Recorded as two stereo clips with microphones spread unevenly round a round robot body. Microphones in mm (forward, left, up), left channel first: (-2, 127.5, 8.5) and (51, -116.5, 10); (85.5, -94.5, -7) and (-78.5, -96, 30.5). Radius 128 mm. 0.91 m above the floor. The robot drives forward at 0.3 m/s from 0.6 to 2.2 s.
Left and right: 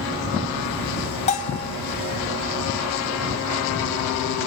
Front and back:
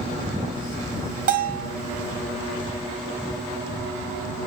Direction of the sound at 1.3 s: 165° left.